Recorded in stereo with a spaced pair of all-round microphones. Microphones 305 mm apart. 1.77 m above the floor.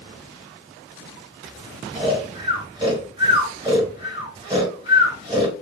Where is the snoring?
15° right (ahead or behind), 1.7 m.